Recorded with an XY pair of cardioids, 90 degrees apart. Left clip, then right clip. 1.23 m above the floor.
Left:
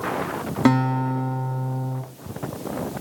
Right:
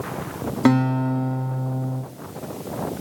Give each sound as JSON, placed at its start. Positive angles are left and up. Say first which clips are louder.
{"t": 0.7, "sound": "a guitar", "louder": "right 1 dB", "azimuth_deg": 0, "distance_m": 2.0}